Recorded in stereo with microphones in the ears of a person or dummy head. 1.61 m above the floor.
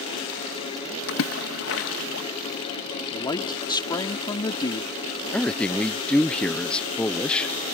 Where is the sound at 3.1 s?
25° left (ahead or behind).